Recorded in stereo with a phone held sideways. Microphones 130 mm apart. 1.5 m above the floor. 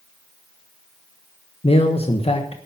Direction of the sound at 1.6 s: 50° left (ahead or behind).